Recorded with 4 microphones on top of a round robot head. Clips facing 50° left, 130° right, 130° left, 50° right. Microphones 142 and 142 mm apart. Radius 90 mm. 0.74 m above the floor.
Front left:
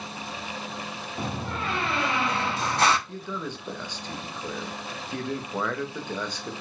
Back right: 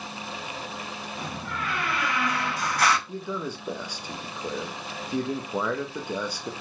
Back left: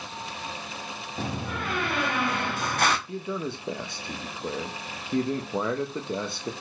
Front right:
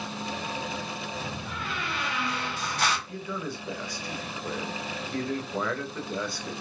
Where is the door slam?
110° left, 0.9 m.